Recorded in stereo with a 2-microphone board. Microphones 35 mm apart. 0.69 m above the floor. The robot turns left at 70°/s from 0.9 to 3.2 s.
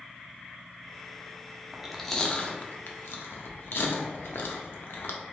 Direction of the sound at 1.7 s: 15° right (ahead or behind).